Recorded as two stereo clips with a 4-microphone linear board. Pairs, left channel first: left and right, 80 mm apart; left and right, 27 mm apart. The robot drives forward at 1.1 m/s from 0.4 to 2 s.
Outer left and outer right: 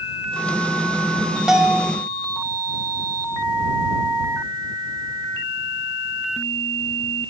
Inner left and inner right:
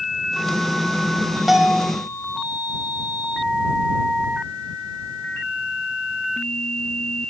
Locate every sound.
1.5 s a bell: 5° right (ahead or behind), 2 m; by 1.9 s 10° right (ahead or behind), 1.7 m